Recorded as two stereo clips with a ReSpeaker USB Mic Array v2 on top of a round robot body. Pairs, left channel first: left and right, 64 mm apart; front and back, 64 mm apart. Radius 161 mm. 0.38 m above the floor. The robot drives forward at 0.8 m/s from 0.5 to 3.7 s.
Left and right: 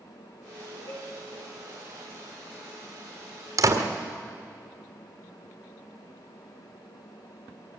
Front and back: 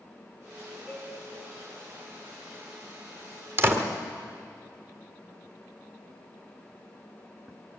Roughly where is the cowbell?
Left.